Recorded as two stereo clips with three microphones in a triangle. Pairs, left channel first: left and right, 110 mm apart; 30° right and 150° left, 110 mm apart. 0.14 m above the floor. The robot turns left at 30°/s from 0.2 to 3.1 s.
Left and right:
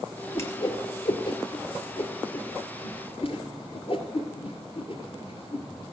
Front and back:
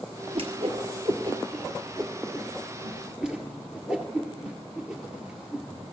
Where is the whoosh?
150° left, 1.6 m; by 5.7 s 70° left, 1.6 m.